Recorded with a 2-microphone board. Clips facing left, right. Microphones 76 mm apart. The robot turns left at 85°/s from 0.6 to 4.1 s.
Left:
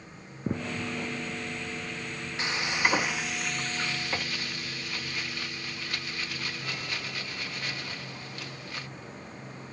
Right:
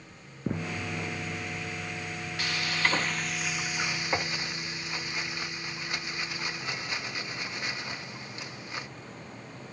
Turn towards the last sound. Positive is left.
turn(degrees=-20)  # may be behind; listen again after turning